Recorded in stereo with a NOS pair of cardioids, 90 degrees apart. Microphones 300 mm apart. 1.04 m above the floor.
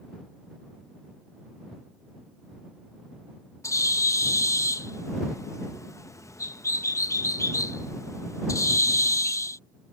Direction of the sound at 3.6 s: 10° left.